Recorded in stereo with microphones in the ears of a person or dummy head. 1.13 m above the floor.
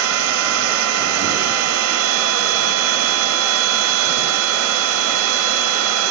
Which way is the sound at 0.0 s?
80° right.